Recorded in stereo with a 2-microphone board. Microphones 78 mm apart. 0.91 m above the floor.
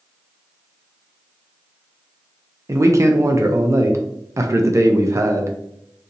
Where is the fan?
I don't hear a fan.